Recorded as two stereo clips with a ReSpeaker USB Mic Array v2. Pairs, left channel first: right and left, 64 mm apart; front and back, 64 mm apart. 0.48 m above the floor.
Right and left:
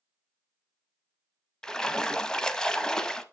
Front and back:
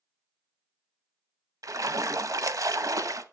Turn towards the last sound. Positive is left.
turn(degrees=-170)